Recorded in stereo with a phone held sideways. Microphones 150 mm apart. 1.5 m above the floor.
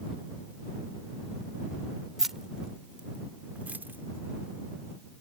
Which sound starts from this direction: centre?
Keys jangling, at 2.2 s.